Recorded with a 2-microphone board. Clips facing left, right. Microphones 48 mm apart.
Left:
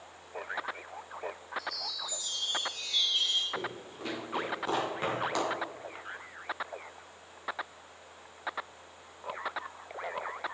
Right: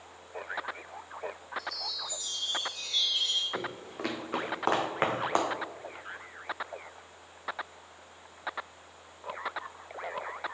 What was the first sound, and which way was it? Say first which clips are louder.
A chime: even; centre (ahead or behind).